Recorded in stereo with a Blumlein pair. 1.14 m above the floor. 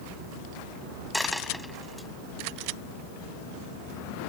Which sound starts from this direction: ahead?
A dropped coin, at 1.1 s.